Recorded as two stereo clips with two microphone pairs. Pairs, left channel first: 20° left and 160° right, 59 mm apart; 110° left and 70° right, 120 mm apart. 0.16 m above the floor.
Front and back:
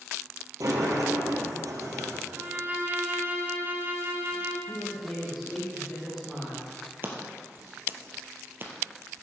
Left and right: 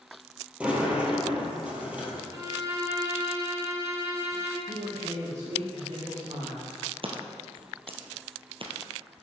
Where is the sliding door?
145° right, 2.5 m.